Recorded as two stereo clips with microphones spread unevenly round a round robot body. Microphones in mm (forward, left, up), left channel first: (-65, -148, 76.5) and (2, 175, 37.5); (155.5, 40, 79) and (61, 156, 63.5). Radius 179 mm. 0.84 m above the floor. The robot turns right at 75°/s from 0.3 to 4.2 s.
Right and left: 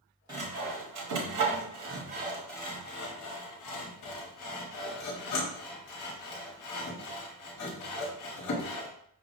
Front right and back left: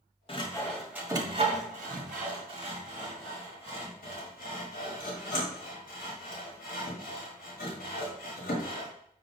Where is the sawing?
5° left, 1.0 m; by 8.9 s 65° right, 1.0 m.